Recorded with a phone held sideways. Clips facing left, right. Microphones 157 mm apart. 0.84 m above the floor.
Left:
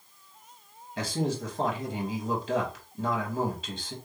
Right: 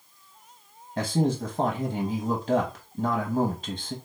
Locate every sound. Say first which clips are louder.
1.0 s a man speaking: right 5 dB; 35° right (ahead or behind), 0.8 m